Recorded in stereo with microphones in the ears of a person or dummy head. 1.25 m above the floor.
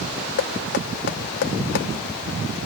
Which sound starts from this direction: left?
Knocking, at 0.4 s.